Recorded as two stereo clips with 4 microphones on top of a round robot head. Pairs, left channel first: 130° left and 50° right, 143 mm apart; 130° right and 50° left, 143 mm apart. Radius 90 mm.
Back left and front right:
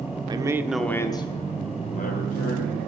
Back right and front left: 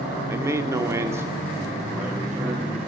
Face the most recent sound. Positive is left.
turn(degrees=135)